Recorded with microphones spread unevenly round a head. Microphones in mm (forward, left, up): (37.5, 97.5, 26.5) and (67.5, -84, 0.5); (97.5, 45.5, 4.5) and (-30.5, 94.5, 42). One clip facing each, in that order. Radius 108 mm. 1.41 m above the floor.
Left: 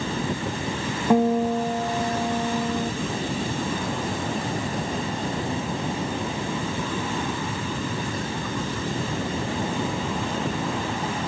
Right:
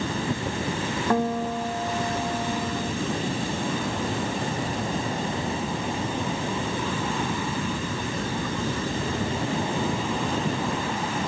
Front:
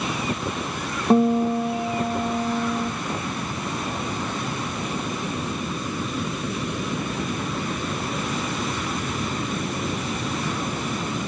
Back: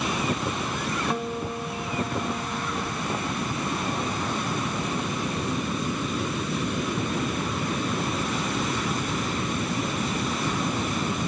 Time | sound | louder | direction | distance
1.1 | a guitar | left 6 dB, front 11 dB | 20° left | 1.0 m